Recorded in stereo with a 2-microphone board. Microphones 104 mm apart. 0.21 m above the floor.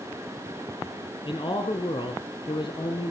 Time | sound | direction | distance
1.2 | a man speaking | 50° left (ahead or behind) | 1.9 m